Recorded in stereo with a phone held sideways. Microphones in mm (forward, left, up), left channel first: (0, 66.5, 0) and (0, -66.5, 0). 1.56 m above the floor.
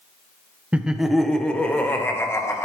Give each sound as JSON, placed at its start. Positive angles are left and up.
{"t": 0.7, "sound": "laughter", "side_deg": -10, "distance_m": 1.0}